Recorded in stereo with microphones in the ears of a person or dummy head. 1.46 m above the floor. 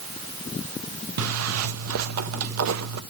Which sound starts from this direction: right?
A zipper, at 1.2 s.